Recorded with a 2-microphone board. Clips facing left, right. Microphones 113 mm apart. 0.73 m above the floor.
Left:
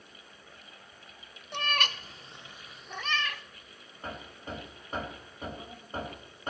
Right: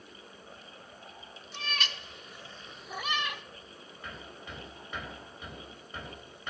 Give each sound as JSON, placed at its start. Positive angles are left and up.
{"t": 1.5, "sound": "a cat meowing", "side_deg": 70, "distance_m": 0.7}
{"t": 4.0, "sound": "hammering", "side_deg": 45, "distance_m": 2.5}